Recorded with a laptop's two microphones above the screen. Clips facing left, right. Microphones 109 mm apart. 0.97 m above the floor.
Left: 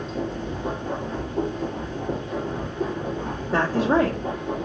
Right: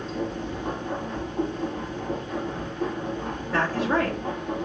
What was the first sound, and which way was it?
A machine running, 10° left (ahead or behind).